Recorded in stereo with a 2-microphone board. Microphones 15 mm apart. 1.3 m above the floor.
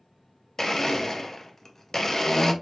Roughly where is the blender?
Left.